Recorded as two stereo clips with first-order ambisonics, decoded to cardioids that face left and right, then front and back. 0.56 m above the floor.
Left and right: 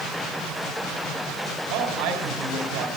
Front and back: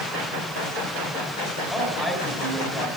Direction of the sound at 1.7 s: 85° right.